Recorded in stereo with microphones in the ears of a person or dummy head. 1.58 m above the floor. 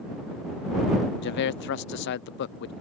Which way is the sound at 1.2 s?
60° left (ahead or behind).